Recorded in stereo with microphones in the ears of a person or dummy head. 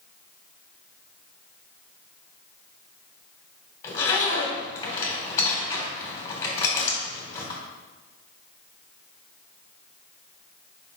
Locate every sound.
3.8 s a zipper: 15° left (ahead or behind), 2.5 m